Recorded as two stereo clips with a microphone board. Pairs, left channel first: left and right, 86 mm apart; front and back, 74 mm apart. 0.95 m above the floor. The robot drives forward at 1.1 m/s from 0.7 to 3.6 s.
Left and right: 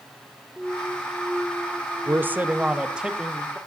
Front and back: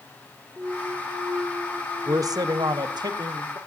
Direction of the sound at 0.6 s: Straight behind.